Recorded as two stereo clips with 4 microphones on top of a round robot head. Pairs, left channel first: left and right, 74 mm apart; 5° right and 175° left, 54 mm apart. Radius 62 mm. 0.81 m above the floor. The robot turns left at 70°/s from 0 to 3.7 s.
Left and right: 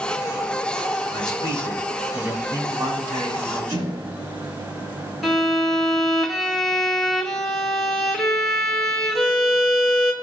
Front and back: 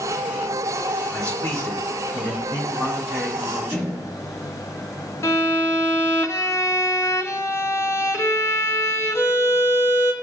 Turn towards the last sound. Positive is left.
turn(degrees=5)